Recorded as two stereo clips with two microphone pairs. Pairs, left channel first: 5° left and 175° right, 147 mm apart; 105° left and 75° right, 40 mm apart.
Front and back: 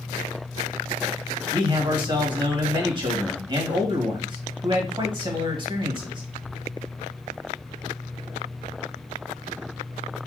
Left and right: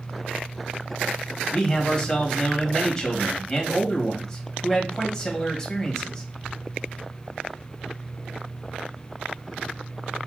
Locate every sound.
1.5 s a man speaking: 170° left, 1.3 m